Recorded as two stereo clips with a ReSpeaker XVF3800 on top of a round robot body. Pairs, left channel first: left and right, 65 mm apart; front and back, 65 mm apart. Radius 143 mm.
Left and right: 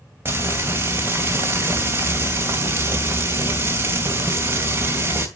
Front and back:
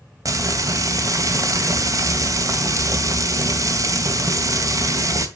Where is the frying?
145° right, 2 m.